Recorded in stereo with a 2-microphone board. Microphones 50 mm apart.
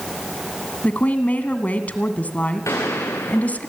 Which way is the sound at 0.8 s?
30° left (ahead or behind).